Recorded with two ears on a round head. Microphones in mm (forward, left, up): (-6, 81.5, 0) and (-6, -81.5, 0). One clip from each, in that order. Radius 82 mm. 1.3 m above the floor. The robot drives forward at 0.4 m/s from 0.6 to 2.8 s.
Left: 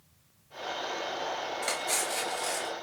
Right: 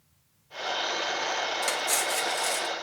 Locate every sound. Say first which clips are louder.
1.6 s cutlery clinking: right 4 dB; 30° right (ahead or behind), 1.3 m; by 2.7 s 40° right (ahead or behind), 1.0 m